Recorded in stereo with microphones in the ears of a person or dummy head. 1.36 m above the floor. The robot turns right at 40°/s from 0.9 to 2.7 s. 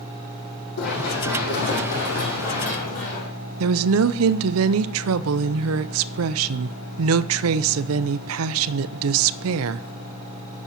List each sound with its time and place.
0.8 s running footsteps: 60° left (ahead or behind), 4 m; by 3.3 s 45° left (ahead or behind), 3 m
3.6 s a woman speaking: 80° right, 0.5 m